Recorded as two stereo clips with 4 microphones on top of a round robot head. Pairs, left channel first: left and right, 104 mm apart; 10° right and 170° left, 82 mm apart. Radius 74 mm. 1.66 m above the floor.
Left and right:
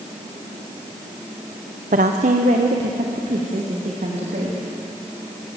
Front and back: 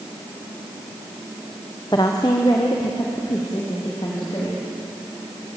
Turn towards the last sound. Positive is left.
turn(degrees=-65)